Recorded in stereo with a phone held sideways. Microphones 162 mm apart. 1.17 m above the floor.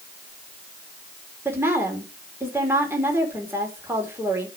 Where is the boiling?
I don't hear boiling.